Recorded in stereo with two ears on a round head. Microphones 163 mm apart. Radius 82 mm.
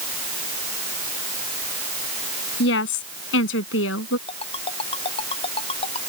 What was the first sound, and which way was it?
A woman speaking, 70° left (ahead or behind).